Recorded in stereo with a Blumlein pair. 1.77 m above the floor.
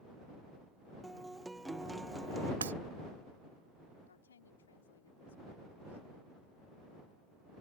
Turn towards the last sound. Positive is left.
turn(degrees=70)